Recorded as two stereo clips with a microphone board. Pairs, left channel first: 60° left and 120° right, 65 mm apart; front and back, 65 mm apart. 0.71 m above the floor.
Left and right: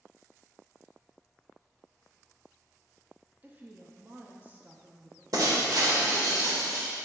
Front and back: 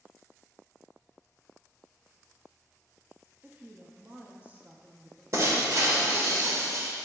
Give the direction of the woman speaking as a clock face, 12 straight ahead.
5 o'clock.